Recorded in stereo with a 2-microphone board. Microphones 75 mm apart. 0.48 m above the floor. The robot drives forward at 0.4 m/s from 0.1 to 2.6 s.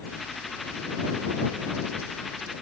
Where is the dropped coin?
I don't hear a dropped coin.